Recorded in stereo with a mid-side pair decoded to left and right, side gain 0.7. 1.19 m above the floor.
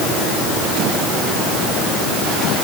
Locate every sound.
Only background noise.